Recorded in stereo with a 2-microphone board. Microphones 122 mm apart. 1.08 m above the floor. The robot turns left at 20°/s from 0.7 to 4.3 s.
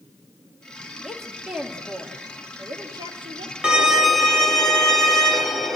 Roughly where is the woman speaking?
Ahead.